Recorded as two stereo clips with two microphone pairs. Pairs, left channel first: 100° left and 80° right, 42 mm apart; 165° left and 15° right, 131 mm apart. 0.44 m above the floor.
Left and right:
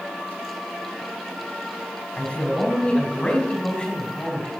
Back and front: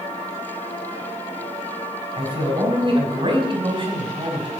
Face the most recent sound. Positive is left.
turn(degrees=35)